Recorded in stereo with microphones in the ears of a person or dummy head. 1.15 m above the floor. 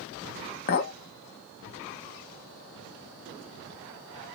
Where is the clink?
40° left (ahead or behind), 0.6 m.